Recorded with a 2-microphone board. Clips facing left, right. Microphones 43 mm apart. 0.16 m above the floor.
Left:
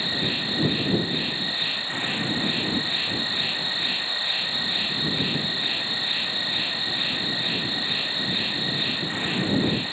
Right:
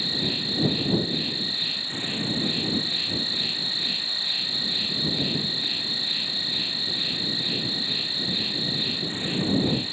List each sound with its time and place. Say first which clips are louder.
0.0 s an insect: left 2 dB; 30° left (ahead or behind)